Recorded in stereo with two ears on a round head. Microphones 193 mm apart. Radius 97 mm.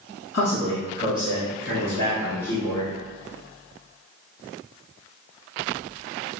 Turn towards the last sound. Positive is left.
turn(degrees=35)  # may be behind; listen again after turning